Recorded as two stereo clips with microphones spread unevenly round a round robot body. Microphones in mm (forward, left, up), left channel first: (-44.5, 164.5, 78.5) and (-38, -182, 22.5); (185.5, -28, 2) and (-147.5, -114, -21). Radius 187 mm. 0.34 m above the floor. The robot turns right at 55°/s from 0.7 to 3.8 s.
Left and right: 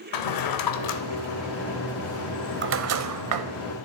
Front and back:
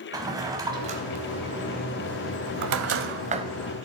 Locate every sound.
0.1 s a drawer: 115° left, 1.0 m; by 3.5 s 90° right, 1.0 m